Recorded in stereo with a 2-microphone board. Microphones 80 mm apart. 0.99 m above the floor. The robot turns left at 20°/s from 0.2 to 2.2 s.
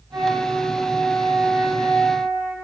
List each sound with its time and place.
0.1 s a flute: 45° right, 6 m; by 2.5 s 85° right, 6 m